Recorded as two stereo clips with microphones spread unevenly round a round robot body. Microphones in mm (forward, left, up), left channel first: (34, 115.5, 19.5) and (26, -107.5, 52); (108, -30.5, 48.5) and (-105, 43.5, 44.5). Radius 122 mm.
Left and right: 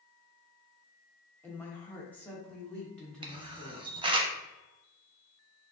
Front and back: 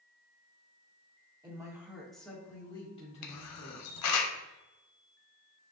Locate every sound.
1.4 s a woman speaking: 135° left, 1.2 m; by 3.9 s 10° left, 1.7 m
3.2 s a camera shutter: 30° right, 0.6 m